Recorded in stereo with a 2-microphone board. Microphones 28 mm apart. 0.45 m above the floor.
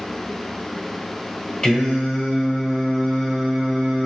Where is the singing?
35° left (ahead or behind), 1.1 m.